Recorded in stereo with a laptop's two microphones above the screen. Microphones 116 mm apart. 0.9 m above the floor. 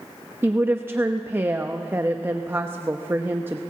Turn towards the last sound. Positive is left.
turn(degrees=-20)  # may be behind; listen again after turning